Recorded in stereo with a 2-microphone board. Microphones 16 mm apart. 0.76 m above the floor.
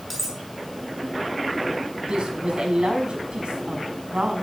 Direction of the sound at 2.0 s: 65° right (ahead or behind).